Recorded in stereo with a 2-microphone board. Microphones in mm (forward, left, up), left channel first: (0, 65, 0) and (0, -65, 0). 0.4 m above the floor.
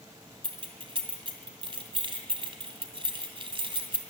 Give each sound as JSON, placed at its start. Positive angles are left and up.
{"t": 0.4, "sound": "keys jangling", "side_deg": -40, "distance_m": 2.5}